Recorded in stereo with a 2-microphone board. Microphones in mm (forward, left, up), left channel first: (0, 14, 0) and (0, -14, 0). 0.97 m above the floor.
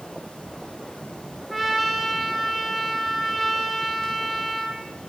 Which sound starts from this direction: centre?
A trumpet, at 1.5 s.